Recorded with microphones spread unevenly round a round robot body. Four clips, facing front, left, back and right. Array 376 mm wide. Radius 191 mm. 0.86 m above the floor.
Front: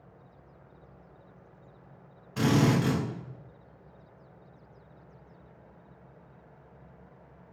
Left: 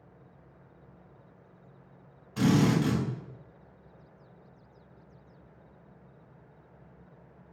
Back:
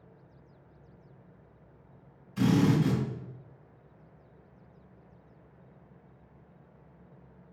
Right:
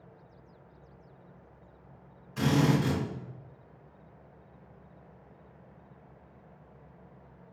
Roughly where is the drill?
Ahead.